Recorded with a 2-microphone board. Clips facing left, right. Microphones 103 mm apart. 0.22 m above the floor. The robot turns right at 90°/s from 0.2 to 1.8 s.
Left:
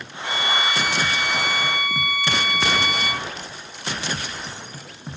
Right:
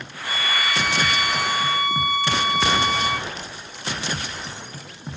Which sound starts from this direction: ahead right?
A violin, at 0.2 s.